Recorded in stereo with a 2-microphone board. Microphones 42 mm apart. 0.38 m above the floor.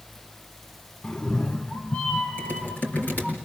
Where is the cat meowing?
25° left (ahead or behind), 0.9 m; by 3.4 s 30° left (ahead or behind), 2 m.